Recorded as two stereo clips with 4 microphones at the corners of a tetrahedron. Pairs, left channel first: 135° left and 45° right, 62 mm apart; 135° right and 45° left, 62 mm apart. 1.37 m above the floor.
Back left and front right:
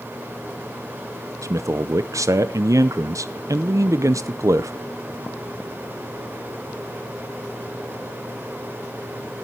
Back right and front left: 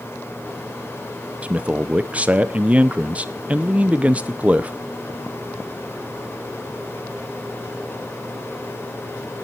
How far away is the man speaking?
About 0.7 m.